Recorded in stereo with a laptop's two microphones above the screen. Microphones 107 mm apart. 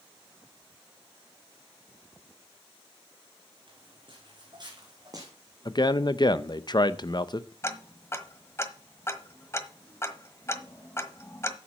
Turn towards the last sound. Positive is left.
turn(degrees=25)  # may be behind; listen again after turning